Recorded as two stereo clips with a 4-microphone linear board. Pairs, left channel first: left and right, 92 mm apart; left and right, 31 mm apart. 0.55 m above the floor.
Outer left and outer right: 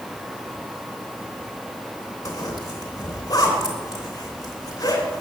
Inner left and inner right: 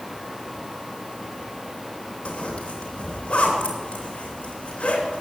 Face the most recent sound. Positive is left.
turn(degrees=40)  # may be behind; listen again after turning